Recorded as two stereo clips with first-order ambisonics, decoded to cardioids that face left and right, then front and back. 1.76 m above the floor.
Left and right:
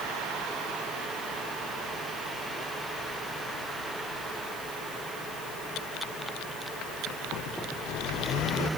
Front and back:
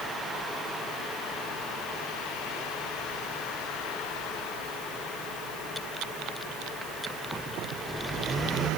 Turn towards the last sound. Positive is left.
No sound to turn to.